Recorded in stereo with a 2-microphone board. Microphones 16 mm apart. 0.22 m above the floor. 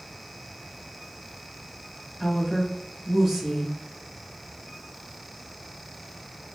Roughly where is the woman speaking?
Centre.